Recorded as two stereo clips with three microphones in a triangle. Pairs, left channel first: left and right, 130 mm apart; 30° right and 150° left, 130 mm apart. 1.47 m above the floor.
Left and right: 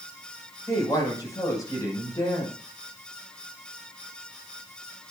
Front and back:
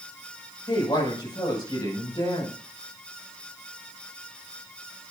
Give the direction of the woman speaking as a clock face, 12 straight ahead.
11 o'clock.